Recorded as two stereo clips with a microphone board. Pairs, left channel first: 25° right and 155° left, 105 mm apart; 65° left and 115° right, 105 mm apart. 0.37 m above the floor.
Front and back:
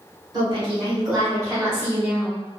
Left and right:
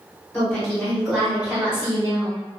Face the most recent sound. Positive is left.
turn(degrees=-125)